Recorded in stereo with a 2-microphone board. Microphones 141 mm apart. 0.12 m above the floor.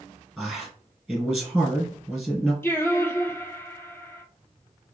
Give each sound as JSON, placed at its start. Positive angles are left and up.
{"t": 0.4, "sound": "a man speaking", "side_deg": 0, "distance_m": 2.0}
{"t": 2.6, "sound": "singing", "side_deg": 15, "distance_m": 0.5}